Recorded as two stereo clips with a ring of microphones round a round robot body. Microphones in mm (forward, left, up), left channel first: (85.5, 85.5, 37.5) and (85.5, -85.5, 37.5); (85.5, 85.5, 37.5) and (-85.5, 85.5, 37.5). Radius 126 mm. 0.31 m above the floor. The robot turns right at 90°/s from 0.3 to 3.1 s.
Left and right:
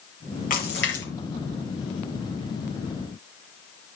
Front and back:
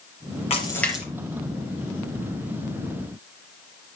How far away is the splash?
About 5 m.